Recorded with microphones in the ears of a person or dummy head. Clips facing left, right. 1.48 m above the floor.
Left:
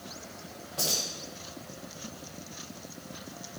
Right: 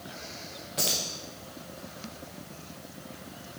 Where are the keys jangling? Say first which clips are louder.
Right 1 dB; 20° right (ahead or behind), 0.7 m.